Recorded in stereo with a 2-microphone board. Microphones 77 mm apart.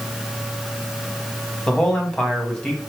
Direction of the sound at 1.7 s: 10° left (ahead or behind).